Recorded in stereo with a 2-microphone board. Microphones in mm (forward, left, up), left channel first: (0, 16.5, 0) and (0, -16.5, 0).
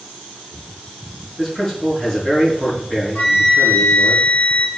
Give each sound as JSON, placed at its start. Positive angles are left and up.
{"t": 1.4, "sound": "a man speaking", "side_deg": 25, "distance_m": 5.5}
{"t": 3.1, "sound": "a flute", "side_deg": 75, "distance_m": 3.5}